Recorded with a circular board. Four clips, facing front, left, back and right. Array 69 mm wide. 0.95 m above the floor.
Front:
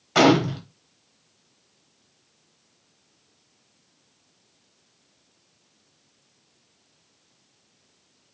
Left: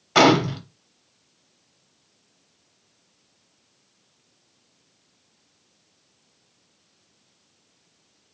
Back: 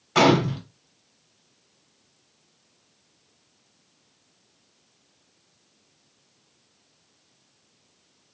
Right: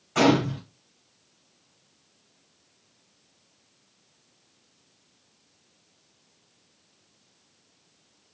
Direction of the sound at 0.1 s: 75° left.